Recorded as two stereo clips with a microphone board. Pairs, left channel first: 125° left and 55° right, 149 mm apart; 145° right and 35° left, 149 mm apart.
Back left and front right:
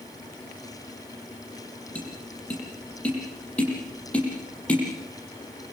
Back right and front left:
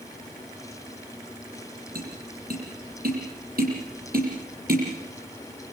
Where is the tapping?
45° left, 9.5 m.